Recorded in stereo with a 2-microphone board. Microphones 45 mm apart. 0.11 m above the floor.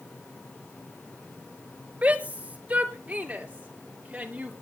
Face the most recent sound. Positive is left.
turn(degrees=-25)  # may be behind; listen again after turning